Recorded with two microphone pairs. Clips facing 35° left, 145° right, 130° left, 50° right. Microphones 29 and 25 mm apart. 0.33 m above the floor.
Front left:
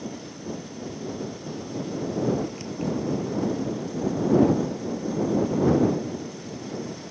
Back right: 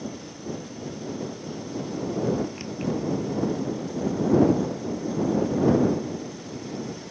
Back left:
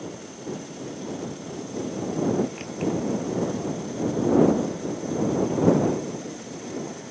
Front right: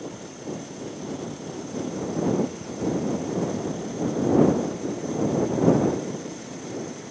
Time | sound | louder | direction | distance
2.6 | keys jangling | even, even | 145° left | ?